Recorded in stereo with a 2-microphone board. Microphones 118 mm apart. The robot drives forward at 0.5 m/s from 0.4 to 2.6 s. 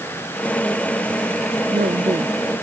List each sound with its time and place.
1.6 s a woman speaking: 70° right (ahead or behind)